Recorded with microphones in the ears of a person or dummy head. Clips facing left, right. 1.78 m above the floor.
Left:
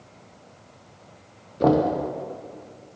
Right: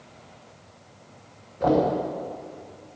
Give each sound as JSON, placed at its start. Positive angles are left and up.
{"t": 1.6, "sound": "knocking", "side_deg": 45, "distance_m": 0.8}